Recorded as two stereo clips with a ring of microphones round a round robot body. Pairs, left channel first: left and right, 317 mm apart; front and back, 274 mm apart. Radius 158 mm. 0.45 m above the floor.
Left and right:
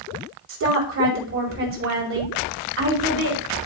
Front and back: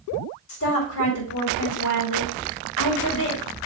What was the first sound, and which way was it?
A woman speaking, 45° right.